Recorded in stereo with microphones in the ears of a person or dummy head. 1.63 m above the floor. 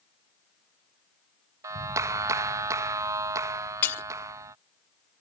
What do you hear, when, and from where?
1.6 s a clap: 20° right (ahead or behind)
3.8 s breaking glass: 15° left (ahead or behind)